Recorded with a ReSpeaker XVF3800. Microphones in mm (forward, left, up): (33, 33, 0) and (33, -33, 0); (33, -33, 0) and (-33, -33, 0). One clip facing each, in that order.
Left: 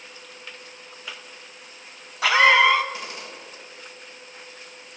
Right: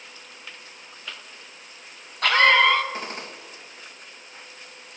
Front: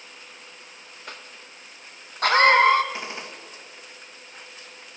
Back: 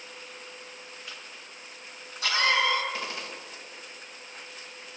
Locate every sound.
1.1 s a cough: 10° left, 0.7 m
2.9 s a gunshot: 60° right, 1.2 m